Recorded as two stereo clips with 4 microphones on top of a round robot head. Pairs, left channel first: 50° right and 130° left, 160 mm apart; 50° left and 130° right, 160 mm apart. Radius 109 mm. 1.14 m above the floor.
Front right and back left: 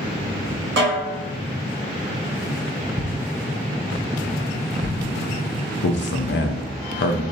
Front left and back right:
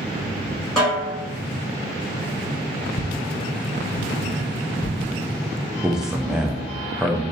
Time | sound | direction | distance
0.8 | a snare drum | 140° left | 2.0 m
3.0 | footsteps | 5° left | 1.7 m
5.8 | a man speaking | 40° right | 0.5 m